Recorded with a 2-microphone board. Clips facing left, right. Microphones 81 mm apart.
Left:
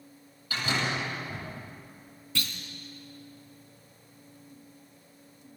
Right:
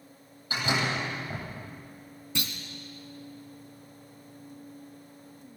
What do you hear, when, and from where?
0.5 s a door slam: 20° right (ahead or behind), 10 m
2.4 s a clunk: 20° right (ahead or behind), 2.5 m